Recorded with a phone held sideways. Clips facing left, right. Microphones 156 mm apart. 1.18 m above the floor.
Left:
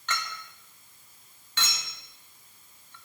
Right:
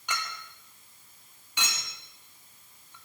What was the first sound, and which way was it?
A clink, 15° right (ahead or behind).